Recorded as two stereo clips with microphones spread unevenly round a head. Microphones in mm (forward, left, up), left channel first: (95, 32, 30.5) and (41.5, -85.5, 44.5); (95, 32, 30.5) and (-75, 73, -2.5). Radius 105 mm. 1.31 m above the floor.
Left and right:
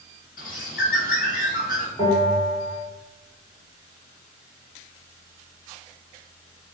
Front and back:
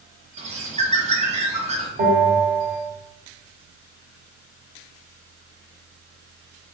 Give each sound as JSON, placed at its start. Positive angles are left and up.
{"t": 0.4, "sound": "a bird", "azimuth_deg": 110, "distance_m": 0.9}
{"t": 2.0, "sound": "a bell", "azimuth_deg": 135, "distance_m": 1.7}